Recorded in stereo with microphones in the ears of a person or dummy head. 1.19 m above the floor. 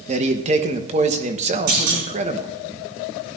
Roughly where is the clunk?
Right.